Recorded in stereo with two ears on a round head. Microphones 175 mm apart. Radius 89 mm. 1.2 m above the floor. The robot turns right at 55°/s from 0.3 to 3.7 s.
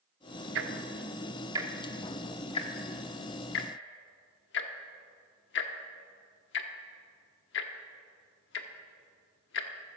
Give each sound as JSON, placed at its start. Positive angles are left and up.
{"t": 0.6, "sound": "ticking", "side_deg": -65, "distance_m": 1.2}